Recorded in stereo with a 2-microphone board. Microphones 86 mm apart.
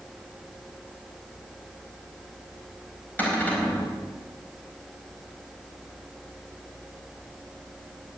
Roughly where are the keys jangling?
No keys jangling in this recording.